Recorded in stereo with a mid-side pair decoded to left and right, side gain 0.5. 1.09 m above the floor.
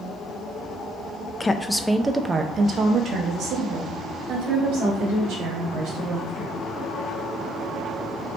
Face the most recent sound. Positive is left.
turn(degrees=-70)